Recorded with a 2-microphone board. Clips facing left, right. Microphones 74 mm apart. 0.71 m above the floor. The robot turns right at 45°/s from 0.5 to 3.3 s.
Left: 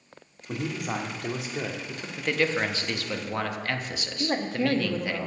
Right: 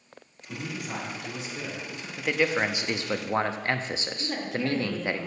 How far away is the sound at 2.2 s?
About 0.6 m.